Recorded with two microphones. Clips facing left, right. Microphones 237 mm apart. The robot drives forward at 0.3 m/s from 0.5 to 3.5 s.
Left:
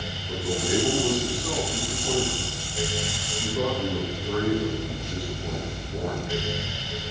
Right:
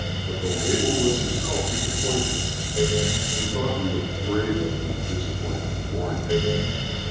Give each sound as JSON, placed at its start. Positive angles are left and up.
{"t": 0.3, "sound": "a man speaking", "side_deg": -65, "distance_m": 8.5}